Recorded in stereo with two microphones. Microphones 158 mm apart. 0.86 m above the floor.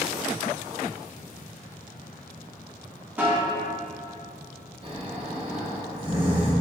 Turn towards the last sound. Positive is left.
turn(degrees=-35)  # may be behind; listen again after turning